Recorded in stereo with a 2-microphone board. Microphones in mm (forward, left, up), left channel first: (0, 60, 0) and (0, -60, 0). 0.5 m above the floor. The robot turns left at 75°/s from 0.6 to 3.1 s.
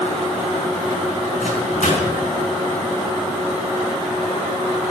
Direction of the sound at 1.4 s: 70° left (ahead or behind).